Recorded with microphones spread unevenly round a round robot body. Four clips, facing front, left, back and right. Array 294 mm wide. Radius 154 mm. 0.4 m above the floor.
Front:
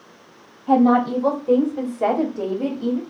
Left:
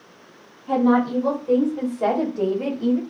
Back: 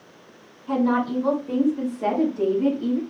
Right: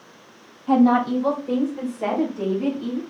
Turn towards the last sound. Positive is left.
turn(degrees=55)